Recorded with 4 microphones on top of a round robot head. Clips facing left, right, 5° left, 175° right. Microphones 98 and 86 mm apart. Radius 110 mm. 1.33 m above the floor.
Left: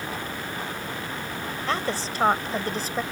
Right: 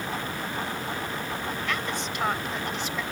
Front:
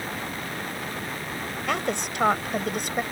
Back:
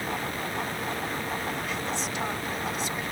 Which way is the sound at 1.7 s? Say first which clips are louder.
Left 7 dB, front 4 dB; 30° left.